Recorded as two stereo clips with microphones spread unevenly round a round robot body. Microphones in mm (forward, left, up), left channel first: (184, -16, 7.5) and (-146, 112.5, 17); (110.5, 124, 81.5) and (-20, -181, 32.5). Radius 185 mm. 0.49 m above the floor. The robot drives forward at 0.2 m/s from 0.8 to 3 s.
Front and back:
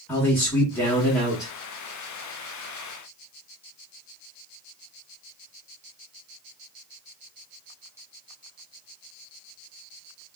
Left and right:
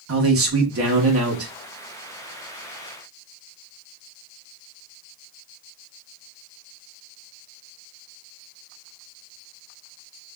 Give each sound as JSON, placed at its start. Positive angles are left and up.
{"t": 0.1, "sound": "a man speaking", "azimuth_deg": -105, "distance_m": 1.0}